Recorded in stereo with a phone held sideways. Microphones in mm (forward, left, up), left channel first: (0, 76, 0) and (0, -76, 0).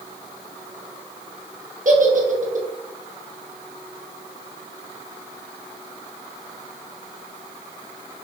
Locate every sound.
1.9 s a giggle: 60° right (ahead or behind), 0.7 m